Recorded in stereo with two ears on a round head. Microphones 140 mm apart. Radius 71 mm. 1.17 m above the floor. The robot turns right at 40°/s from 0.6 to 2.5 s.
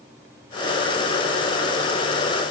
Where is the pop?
I don't hear a pop.